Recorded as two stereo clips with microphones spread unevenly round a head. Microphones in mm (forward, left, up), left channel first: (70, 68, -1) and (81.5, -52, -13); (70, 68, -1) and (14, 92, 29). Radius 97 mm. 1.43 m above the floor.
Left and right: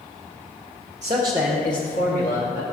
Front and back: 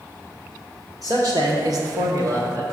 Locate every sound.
1.0 s a man speaking: 140° right, 0.9 m; by 2.6 s 120° left, 1.3 m